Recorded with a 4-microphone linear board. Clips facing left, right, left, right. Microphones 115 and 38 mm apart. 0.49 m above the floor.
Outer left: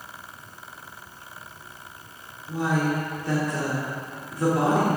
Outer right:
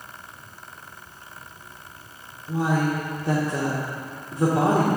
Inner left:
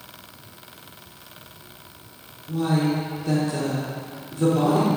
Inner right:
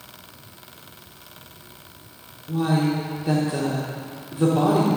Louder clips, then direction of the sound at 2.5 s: Outer right 1 dB, inner right 1 dB; 25° right (ahead or behind).